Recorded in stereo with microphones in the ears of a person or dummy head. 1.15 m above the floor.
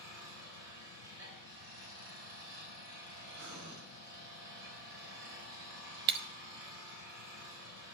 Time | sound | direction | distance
0.0 | an engine running | 70° right (ahead or behind) | 3.5 m
3.4 | breathing | 75° right (ahead or behind) | 3 m
6.1 | breaking glass | 25° right (ahead or behind) | 0.5 m